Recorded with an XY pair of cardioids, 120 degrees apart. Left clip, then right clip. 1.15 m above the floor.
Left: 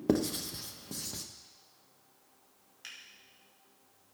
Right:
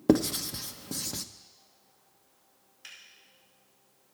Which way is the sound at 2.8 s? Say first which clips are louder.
Even; 20° left.